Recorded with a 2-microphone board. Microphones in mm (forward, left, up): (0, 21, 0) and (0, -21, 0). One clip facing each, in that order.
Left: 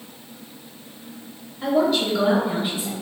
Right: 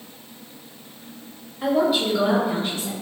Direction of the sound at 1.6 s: 15° right (ahead or behind).